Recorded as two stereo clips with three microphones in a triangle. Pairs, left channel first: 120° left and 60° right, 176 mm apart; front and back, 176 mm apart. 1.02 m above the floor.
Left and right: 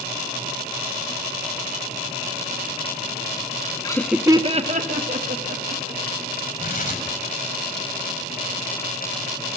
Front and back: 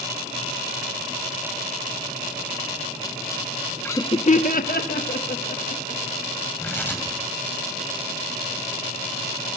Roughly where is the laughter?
Left.